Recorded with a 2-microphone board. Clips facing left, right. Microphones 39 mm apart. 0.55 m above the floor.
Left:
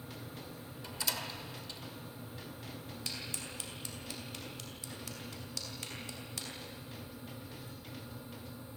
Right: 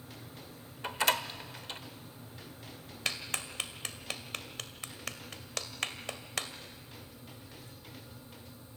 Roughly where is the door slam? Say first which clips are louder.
Right 9 dB; right.